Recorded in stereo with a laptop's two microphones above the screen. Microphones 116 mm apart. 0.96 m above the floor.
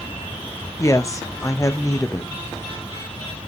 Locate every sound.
0.8 s a woman speaking: 25° left (ahead or behind), 0.5 m